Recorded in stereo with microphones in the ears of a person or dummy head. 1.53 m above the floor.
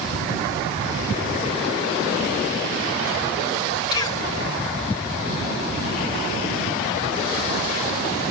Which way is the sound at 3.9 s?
25° left (ahead or behind).